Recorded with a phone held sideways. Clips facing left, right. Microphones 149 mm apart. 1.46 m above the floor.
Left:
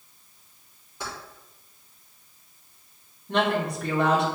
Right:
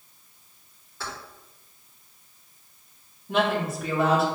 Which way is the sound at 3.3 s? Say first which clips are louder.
Even; 5° right (ahead or behind).